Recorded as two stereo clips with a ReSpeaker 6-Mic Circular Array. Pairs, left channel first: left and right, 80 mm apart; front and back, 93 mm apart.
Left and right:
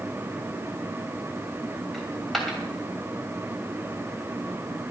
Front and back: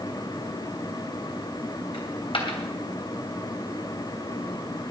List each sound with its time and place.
1.9 s a dropped coin: straight ahead, 2.5 m